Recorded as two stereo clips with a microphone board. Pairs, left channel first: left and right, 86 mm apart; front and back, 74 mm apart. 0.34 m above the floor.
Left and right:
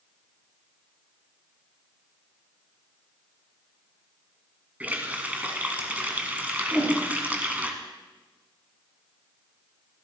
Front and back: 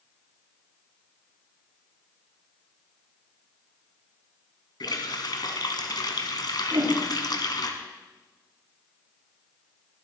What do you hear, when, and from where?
4.8 s a running tap: 20° right, 1.8 m
6.7 s a whoosh: straight behind, 4 m